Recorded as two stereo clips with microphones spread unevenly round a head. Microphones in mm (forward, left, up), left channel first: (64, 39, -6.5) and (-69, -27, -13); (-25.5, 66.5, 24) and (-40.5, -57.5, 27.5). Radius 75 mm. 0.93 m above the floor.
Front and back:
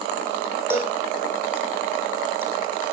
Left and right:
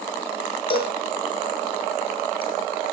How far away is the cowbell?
About 6.5 m.